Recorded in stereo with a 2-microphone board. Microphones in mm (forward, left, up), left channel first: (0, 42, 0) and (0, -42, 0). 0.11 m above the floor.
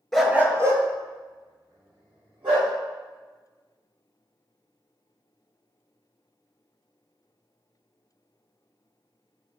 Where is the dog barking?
5° left (ahead or behind), 0.6 m; by 2.7 s 65° right (ahead or behind), 3 m.